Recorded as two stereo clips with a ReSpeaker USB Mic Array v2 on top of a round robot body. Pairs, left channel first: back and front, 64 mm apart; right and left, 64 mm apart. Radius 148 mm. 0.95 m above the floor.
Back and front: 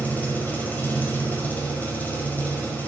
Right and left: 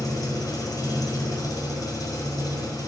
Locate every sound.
0.0 s an engine running: 115° right, 4.5 m